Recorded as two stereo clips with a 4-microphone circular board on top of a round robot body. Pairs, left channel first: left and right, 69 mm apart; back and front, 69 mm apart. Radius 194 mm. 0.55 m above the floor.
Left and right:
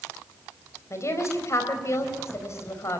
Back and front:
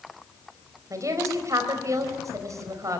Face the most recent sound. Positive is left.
turn(degrees=45)